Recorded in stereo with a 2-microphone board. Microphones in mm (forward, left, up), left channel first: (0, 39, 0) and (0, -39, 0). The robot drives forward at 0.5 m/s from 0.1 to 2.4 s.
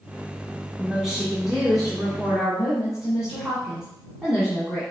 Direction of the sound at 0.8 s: 5° right (ahead or behind).